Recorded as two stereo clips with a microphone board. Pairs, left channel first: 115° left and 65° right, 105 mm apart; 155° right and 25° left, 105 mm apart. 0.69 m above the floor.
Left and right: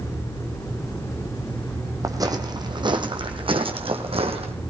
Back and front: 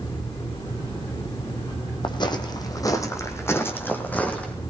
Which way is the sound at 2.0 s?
120° right.